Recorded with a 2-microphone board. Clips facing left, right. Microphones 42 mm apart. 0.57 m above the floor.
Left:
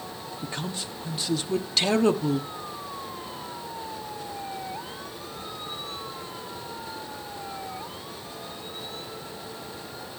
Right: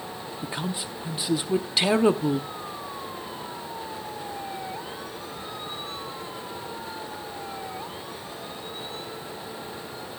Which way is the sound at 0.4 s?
15° right (ahead or behind).